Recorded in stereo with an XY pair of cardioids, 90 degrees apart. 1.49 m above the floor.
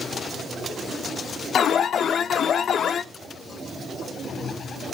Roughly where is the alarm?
Ahead left.